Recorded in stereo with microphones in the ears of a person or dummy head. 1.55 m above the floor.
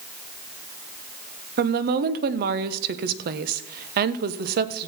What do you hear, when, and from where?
1.6 s a woman speaking: 55° right (ahead or behind), 0.9 m